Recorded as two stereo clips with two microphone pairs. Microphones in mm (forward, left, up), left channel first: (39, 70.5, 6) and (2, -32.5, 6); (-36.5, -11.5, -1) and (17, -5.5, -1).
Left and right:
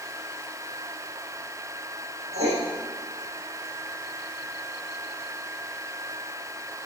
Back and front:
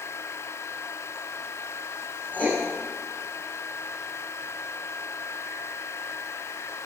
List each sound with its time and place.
2.3 s writing: 110° right, 5 m